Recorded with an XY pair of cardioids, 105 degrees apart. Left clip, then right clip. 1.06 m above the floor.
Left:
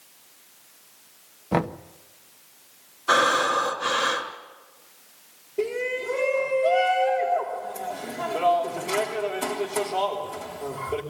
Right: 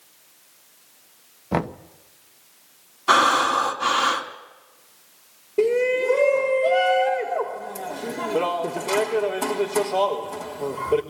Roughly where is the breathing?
Ahead right.